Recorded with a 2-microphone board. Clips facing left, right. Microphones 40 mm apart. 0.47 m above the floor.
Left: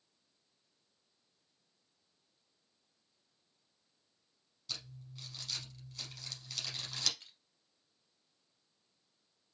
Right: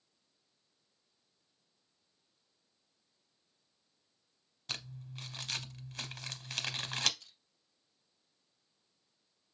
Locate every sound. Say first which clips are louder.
4.7 s crumpling: right 4 dB; 45° right (ahead or behind), 0.7 m
7.2 s crushing: left 2 dB; 35° left (ahead or behind), 2.5 m